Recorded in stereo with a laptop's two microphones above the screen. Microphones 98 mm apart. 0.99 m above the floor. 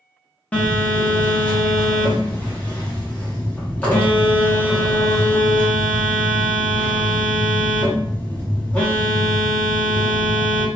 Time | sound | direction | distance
0.5 | a phone buzzing | 15° left (ahead or behind) | 0.8 m